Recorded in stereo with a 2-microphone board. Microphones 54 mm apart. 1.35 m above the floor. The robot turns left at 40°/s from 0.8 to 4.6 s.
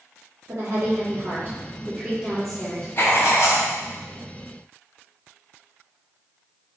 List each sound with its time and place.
0.5 s a woman speaking: 115° right, 1.4 m; by 2.9 s 165° left, 1.4 m
3.0 s writing: 40° left (ahead or behind), 0.6 m; by 3.6 s 70° left (ahead or behind), 0.6 m